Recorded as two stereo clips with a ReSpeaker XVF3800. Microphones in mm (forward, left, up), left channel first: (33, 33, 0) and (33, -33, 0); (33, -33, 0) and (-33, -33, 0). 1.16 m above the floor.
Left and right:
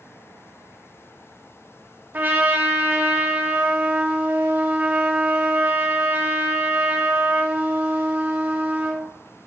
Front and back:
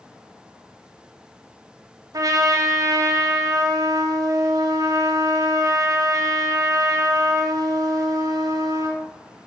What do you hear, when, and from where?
2.1 s a trumpet: 150° right, 1.2 m